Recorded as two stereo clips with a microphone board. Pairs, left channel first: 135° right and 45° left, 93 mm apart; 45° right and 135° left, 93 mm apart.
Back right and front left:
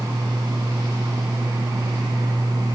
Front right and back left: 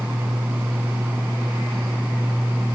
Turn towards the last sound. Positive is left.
No sound to turn to.